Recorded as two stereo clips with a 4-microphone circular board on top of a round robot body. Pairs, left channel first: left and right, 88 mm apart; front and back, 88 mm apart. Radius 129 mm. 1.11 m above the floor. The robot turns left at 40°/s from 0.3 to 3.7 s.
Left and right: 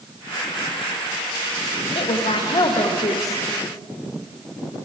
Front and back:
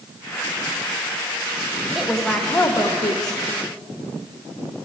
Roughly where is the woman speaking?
Left.